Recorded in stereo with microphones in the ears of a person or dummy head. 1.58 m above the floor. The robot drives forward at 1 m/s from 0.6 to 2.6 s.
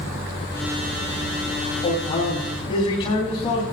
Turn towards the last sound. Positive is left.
turn(degrees=25)  # may be behind; listen again after turning